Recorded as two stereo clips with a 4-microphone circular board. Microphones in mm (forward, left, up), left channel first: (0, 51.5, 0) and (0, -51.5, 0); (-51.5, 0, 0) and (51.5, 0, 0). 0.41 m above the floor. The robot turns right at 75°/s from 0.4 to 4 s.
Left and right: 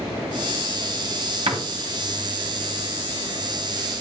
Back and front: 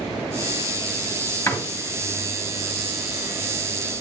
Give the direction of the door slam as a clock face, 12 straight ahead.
4 o'clock.